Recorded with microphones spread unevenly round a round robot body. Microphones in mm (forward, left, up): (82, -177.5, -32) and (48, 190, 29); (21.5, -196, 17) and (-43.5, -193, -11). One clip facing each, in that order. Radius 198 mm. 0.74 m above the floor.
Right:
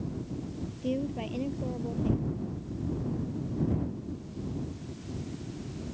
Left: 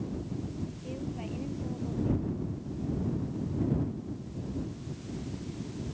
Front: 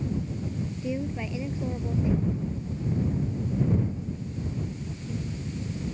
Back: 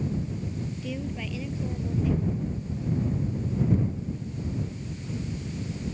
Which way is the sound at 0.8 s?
65° right.